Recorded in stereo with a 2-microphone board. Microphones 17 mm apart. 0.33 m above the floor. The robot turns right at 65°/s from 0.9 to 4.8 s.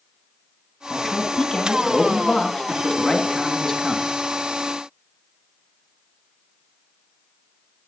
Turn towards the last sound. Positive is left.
turn(degrees=-115)